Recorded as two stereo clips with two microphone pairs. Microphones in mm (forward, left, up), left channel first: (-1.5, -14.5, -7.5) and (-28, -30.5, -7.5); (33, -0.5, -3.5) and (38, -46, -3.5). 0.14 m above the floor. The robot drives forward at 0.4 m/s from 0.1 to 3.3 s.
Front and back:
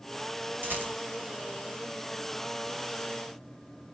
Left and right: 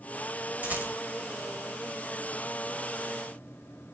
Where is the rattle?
135° right, 2.5 m; by 0.9 s 140° right, 2.5 m.